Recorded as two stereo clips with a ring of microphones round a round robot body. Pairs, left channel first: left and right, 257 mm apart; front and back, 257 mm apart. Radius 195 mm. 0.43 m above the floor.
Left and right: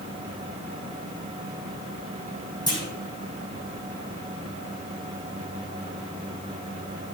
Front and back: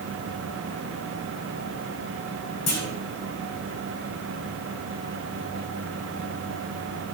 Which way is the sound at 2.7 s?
15° left.